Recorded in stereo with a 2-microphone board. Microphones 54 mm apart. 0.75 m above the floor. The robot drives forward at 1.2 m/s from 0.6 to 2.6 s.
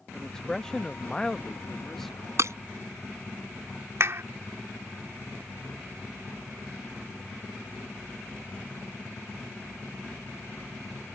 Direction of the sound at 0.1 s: 10° left (ahead or behind).